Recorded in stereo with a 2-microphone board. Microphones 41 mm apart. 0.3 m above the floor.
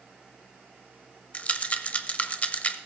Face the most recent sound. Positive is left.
turn(degrees=35)  # may be behind; listen again after turning